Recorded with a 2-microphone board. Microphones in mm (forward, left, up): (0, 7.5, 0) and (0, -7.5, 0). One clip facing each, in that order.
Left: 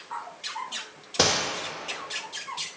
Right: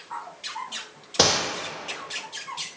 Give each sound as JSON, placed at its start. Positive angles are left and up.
{"t": 1.2, "sound": "a gunshot", "side_deg": -15, "distance_m": 1.3}